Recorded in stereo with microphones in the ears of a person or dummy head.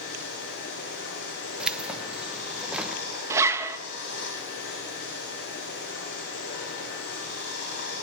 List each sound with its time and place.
0.0 s running water: 55° left (ahead or behind), 8.5 m
1.6 s keys jangling: 5° right (ahead or behind), 0.7 m
3.3 s a zipper: 15° right (ahead or behind), 0.8 m